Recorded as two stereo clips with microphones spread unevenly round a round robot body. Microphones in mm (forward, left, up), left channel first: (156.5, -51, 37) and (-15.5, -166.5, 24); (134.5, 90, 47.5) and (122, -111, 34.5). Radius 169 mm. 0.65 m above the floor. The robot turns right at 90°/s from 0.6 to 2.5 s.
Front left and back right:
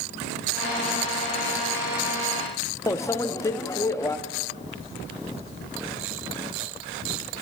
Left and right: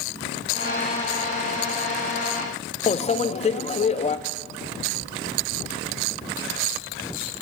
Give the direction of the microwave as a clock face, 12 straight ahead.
9 o'clock.